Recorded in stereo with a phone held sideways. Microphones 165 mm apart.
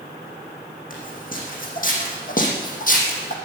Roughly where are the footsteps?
Left.